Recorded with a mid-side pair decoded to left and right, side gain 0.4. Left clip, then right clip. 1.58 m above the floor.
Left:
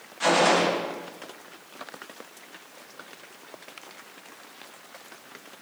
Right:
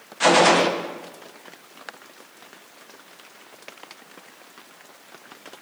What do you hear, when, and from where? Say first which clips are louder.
0.2 s a gunshot: right 5 dB; 55° right, 1.5 m